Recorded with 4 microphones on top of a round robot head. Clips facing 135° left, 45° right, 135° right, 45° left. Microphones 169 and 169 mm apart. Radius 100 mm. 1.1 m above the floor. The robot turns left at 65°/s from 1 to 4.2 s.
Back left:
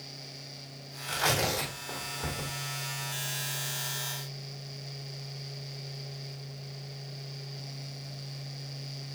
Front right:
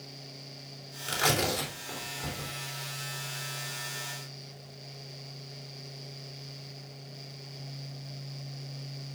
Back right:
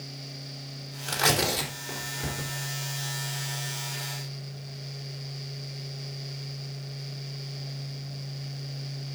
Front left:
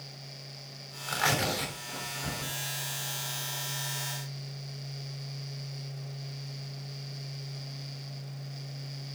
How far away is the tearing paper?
About 3.5 m.